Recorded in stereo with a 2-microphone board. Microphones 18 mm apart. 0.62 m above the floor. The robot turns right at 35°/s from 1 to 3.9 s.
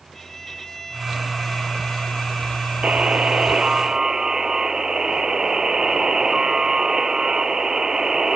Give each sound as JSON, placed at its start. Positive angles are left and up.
{"t": 0.1, "sound": "a violin", "azimuth_deg": 15}
{"t": 2.8, "sound": "a buzzer", "azimuth_deg": -70}